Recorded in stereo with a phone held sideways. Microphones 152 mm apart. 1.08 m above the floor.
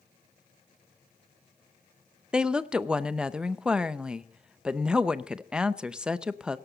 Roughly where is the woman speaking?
Centre.